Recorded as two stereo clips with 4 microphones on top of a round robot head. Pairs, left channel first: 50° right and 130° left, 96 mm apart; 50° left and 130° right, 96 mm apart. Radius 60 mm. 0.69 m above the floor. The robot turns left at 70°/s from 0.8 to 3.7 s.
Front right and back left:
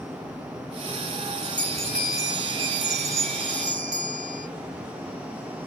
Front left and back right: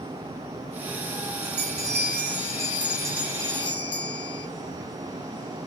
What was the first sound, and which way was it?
A bell, 110° right.